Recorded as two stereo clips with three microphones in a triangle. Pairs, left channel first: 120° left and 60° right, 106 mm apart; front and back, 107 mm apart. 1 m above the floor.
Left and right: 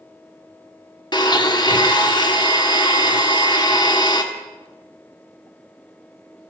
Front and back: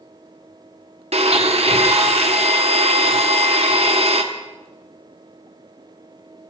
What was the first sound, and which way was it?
A blender, 165° left.